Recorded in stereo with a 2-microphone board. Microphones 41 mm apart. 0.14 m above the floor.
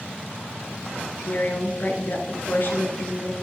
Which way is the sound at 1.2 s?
50° left (ahead or behind).